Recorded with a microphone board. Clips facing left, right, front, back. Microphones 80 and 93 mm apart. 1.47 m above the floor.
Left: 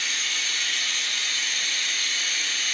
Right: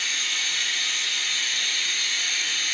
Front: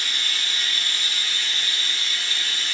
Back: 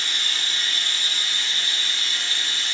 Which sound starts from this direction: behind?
Running water, at 0.0 s.